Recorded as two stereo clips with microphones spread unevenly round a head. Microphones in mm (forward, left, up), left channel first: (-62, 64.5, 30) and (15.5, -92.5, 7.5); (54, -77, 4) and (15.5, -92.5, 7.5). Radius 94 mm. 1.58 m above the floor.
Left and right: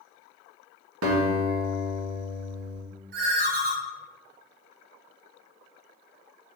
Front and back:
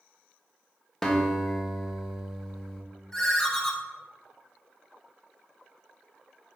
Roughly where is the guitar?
Ahead right.